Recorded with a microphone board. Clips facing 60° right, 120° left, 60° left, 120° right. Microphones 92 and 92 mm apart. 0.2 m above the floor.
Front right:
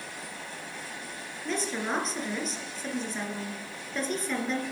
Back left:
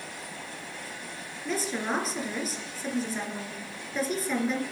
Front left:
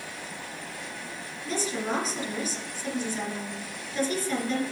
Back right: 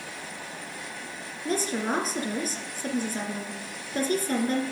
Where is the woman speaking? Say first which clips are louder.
Back left 1 dB, back right 2 dB; 155° right, 2.5 m.